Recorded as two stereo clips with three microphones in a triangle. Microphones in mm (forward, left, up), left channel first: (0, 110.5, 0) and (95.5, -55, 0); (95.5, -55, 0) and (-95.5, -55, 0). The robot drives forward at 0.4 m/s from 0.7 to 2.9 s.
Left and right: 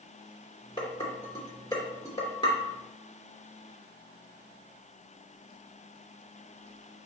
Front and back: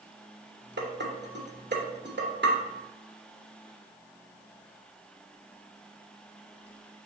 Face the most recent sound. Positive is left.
turn(degrees=-175)